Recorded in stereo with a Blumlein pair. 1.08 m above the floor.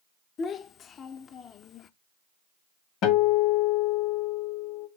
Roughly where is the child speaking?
Ahead left.